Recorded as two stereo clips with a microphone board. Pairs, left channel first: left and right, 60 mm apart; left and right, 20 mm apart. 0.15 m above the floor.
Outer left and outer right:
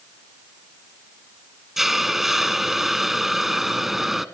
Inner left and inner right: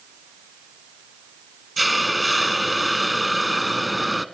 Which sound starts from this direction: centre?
A hiss, at 1.8 s.